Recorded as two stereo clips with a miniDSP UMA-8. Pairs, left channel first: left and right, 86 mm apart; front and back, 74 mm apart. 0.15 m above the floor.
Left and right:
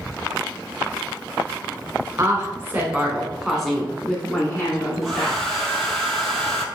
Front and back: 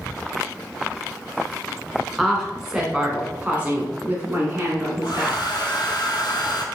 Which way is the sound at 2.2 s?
85° right.